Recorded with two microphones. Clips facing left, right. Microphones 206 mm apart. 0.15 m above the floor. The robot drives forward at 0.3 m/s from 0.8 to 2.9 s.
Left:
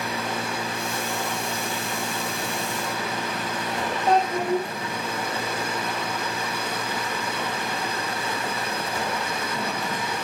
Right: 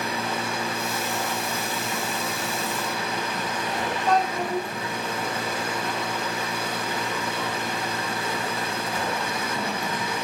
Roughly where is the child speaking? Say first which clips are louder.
Left 3 dB; left.